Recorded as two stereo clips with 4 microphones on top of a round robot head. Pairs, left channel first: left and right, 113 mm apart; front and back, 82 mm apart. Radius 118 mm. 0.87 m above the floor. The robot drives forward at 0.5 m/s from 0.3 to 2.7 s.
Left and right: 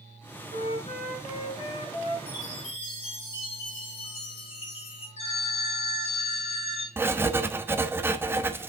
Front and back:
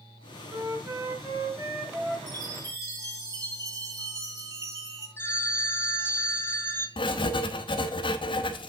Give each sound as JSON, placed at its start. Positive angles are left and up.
{"t": 0.5, "sound": "a flute", "azimuth_deg": 125, "distance_m": 5.5}
{"t": 2.3, "sound": "a chime", "azimuth_deg": 130, "distance_m": 4.0}
{"t": 5.2, "sound": "a phone ringing", "azimuth_deg": 65, "distance_m": 3.0}
{"t": 7.0, "sound": "writing", "azimuth_deg": -20, "distance_m": 0.9}